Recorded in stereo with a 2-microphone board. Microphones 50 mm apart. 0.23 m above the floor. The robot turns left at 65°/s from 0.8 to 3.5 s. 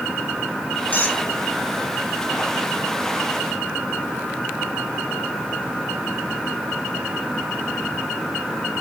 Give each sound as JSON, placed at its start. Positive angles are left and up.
{"t": 0.9, "sound": "a squeak", "side_deg": 35, "distance_m": 0.9}